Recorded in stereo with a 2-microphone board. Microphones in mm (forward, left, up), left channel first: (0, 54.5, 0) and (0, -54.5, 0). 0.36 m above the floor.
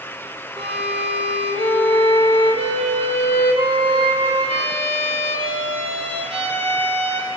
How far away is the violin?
About 3.5 m.